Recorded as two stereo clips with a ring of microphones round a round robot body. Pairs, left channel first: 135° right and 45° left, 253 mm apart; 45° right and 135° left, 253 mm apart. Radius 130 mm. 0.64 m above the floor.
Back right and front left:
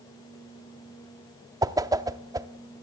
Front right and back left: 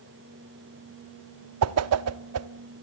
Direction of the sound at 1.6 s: 120° left.